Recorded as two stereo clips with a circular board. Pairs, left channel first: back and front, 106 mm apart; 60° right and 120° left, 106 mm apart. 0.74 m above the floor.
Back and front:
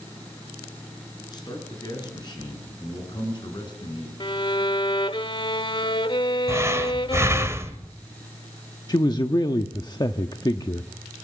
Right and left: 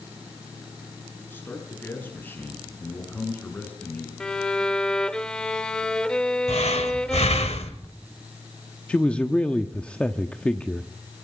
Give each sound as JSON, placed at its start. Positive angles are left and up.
{"t": 1.3, "sound": "a man speaking", "azimuth_deg": -130, "distance_m": 8.0}
{"t": 4.2, "sound": "a violin", "azimuth_deg": -140, "distance_m": 0.9}
{"t": 6.5, "sound": "breathing", "azimuth_deg": -65, "distance_m": 1.6}
{"t": 8.9, "sound": "a man speaking", "azimuth_deg": -135, "distance_m": 1.0}